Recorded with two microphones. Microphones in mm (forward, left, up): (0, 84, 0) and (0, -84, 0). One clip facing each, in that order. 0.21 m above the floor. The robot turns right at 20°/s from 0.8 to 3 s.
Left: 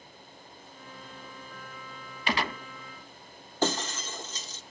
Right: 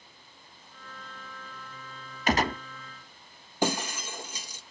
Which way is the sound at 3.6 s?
10° right (ahead or behind).